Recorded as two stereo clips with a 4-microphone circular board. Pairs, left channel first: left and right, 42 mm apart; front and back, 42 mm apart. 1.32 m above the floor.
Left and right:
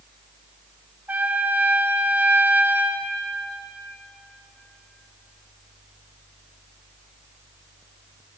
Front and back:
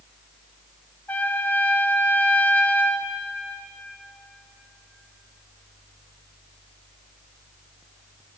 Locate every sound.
1.1 s a trumpet: 45° right, 0.6 m